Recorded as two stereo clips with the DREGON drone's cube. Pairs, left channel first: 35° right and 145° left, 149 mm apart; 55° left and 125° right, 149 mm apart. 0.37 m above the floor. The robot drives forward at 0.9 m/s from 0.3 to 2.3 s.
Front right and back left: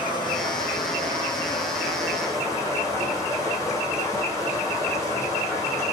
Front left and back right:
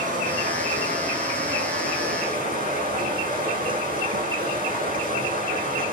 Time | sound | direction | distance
0.0 | running water | 95° right | 8.5 m